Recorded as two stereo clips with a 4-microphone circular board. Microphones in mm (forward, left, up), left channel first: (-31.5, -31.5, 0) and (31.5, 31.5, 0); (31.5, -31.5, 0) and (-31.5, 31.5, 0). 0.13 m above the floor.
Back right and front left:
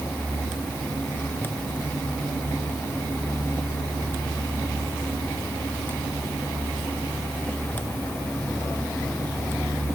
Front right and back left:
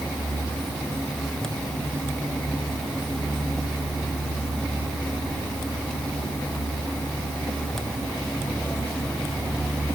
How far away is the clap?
No clap in this recording.